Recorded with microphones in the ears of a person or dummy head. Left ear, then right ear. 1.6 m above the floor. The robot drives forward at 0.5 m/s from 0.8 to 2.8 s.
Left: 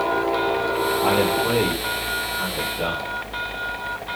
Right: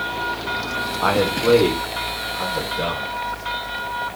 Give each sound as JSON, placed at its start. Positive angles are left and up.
{"t": 1.0, "sound": "a man speaking", "side_deg": -45, "distance_m": 0.9}